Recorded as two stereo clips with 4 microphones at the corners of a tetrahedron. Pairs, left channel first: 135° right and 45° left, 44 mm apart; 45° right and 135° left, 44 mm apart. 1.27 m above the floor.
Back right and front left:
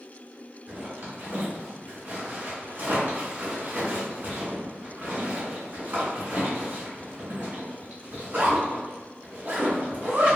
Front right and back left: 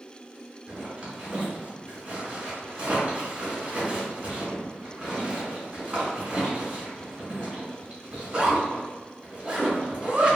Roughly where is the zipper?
Left.